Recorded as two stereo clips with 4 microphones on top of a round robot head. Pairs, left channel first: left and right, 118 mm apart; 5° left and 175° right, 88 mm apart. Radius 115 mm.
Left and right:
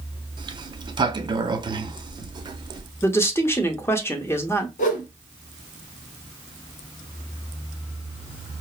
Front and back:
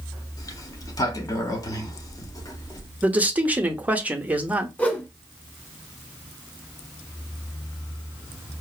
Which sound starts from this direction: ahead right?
A sliding door, at 0.4 s.